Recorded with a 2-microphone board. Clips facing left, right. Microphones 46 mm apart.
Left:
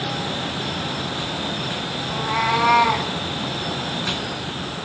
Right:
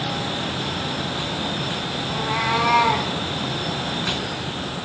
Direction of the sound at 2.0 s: 30° left (ahead or behind).